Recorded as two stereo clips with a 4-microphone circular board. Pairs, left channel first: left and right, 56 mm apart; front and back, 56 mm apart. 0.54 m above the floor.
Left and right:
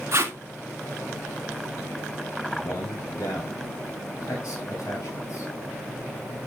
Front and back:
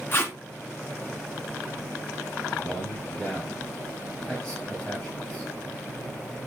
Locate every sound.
0.1 s tape being pulled: 50° right, 1.8 m
2.5 s a man speaking: 75° left, 3.5 m